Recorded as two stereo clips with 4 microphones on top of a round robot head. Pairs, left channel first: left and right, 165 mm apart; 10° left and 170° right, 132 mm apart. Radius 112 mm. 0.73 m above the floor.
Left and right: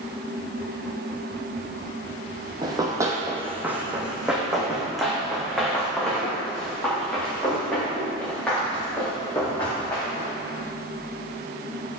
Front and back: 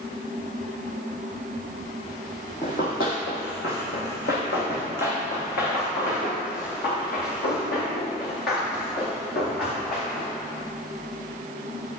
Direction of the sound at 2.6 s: 30° right.